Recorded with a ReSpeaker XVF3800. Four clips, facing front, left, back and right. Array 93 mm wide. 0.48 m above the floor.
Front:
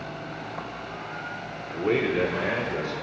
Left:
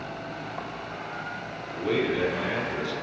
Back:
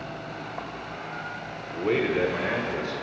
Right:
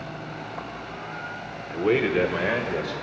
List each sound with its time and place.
1.7 s a man speaking: 85° right, 1.5 m; by 3.0 s 90° right, 3 m